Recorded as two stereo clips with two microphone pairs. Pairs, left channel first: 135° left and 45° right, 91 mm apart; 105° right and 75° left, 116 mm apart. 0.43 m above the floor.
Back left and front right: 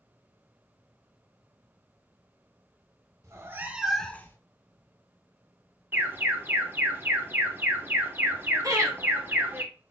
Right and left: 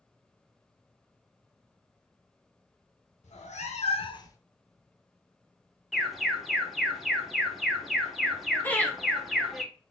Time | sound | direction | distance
3.2 | a cat meowing | 100° right | 0.7 m
5.9 | an alarm | 15° right | 0.7 m
8.6 | laughter | 45° right | 1.0 m